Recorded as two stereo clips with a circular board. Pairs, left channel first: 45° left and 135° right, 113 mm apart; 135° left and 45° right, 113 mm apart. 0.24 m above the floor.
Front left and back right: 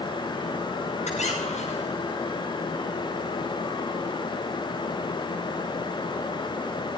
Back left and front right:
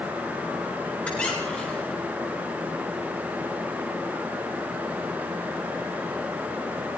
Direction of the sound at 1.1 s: 55° left.